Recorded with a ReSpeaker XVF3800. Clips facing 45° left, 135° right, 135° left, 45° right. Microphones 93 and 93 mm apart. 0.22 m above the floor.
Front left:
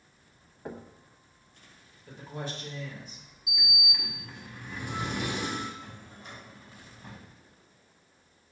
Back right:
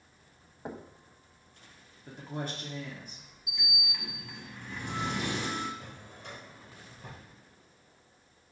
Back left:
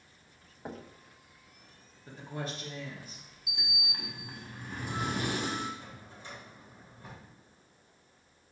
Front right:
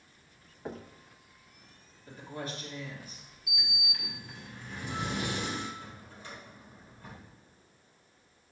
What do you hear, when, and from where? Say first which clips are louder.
0.7 s knocking: even, front right 2 dB; 170° right, 0.7 m
2.1 s a woman speaking: back right 1 dB, back left 1 dB; 170° right, 3 m
3.5 s a sliding door: front left 3 dB, front right 1 dB; 125° left, 1.5 m
5.8 s a drawer: even, front right 1 dB; 150° right, 3.5 m